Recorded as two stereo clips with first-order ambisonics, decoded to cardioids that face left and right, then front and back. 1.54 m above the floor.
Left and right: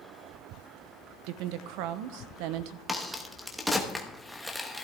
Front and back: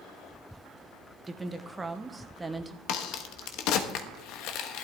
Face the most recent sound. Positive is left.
turn(degrees=-5)